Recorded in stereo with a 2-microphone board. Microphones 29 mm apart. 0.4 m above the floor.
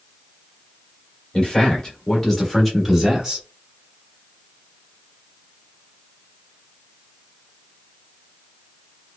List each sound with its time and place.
1.3 s a man speaking: 30° left (ahead or behind), 1.3 m; by 3.5 s 20° right (ahead or behind), 1.1 m